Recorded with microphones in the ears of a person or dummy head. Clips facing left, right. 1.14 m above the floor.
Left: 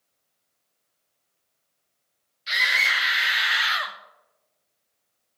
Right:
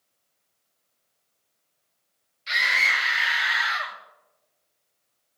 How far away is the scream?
About 1.5 m.